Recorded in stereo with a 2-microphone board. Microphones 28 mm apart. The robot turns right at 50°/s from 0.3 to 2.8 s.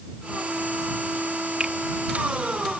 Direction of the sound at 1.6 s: 30° right (ahead or behind).